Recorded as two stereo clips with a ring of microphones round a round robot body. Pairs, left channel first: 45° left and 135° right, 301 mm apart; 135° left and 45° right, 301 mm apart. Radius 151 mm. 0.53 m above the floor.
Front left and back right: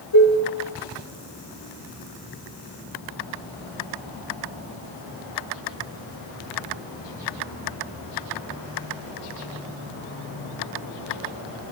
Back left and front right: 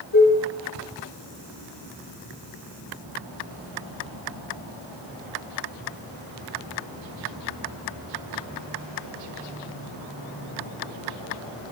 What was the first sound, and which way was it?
Dishes clattering, 85° left.